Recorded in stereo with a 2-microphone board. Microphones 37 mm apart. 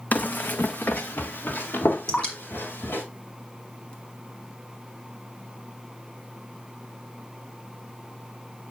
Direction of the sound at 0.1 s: 50° left (ahead or behind).